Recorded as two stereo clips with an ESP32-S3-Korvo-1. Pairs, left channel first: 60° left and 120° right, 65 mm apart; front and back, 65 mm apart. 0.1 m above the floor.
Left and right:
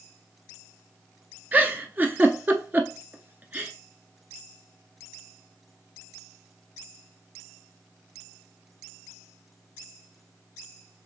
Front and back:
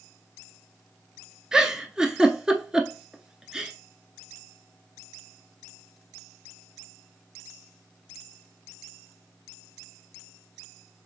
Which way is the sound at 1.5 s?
110° right.